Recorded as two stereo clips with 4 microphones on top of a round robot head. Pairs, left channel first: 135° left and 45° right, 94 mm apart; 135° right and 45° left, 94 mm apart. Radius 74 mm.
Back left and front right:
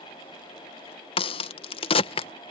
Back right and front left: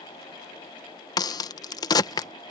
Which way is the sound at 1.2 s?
170° left.